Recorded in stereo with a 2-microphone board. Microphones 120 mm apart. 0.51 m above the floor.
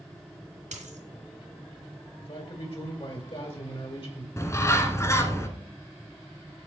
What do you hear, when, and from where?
0.7 s a dropped coin: 80° right, 3 m
2.2 s a man speaking: 55° left (ahead or behind), 2.5 m
4.4 s a bird: 25° left (ahead or behind), 1.2 m